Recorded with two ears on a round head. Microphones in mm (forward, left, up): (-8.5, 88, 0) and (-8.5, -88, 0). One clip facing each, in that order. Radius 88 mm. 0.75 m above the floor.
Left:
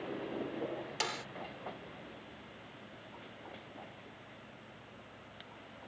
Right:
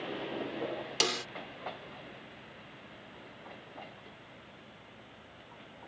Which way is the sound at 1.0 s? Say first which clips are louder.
Right 6 dB; 50° right (ahead or behind).